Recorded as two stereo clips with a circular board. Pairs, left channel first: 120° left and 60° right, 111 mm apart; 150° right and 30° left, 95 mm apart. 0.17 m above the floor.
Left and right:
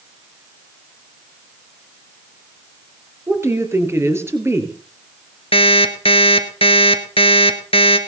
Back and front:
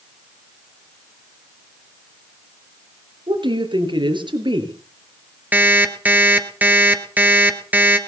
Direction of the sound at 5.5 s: 100° left.